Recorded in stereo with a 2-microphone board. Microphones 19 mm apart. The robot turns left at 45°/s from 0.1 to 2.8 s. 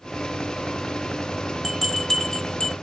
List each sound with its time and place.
1.6 s a bell: centre (ahead or behind), 0.5 m; by 2.7 s 45° left (ahead or behind), 0.5 m